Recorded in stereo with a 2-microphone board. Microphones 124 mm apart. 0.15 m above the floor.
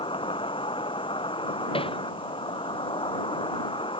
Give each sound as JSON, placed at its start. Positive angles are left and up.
{"t": 0.0, "sound": "an insect", "side_deg": 45}
{"t": 1.7, "sound": "hammering", "side_deg": 45}